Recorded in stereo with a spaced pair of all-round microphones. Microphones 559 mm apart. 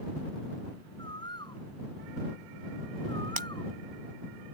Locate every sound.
1.0 s a bird: 10° left (ahead or behind)
3.4 s breaking glass: 60° right (ahead or behind)